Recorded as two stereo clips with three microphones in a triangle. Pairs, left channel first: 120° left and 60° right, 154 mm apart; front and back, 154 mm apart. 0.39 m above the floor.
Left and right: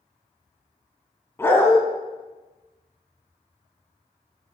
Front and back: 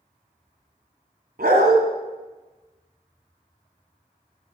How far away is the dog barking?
About 1.5 m.